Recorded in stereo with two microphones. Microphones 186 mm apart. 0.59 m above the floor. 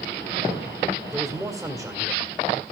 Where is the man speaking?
5° right (ahead or behind), 2 m.